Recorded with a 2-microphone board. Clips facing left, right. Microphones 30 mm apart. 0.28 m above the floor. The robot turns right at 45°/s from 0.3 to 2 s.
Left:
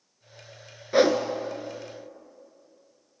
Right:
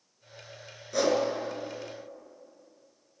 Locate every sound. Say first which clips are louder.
0.9 s a whoosh: left 5 dB; 45° left (ahead or behind), 0.6 m; by 1.2 s 35° left (ahead or behind), 0.6 m